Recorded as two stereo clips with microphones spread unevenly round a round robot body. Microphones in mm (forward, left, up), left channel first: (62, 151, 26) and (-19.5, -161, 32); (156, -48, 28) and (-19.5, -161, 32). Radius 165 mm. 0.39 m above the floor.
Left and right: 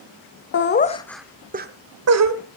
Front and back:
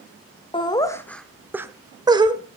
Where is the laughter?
85° left, 1.3 m; by 2.4 s 80° right, 1.9 m.